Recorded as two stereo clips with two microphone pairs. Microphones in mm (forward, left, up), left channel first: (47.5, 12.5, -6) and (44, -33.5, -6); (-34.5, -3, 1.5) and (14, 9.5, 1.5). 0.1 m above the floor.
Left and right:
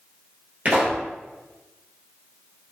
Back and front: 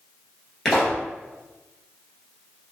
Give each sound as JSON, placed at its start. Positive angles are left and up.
{"t": 0.7, "sound": "a pop", "azimuth_deg": -85, "distance_m": 1.2}